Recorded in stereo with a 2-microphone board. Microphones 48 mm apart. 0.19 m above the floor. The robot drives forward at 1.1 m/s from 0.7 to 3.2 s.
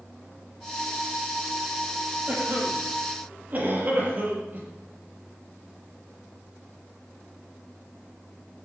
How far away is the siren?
No siren in this recording.